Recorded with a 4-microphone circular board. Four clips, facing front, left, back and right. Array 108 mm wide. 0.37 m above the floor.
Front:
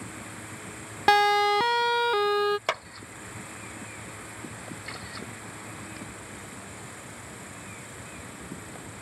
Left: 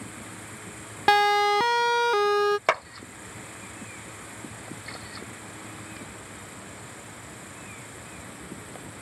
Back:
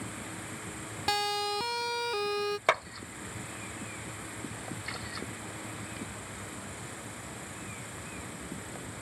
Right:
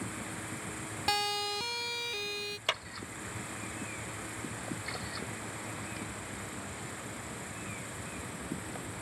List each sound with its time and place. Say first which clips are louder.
1.1 s a siren: left 14 dB, front 11 dB; 40° left; by 2.6 s 60° left
2.7 s a clap: left 12 dB, back 3 dB; 105° left